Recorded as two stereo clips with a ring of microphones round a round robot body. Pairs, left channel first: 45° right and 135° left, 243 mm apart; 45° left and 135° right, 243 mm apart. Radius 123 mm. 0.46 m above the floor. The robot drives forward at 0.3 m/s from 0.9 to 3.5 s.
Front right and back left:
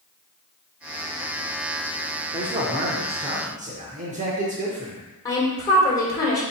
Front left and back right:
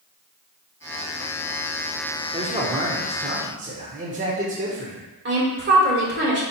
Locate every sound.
2.3 s a man speaking: 175° right, 0.7 m; by 5.0 s straight behind, 0.9 m
5.2 s a woman speaking: 115° right, 1.8 m